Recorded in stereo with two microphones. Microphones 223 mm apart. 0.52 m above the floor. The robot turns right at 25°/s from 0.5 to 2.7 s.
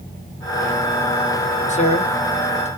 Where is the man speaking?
30° left (ahead or behind), 1.0 m.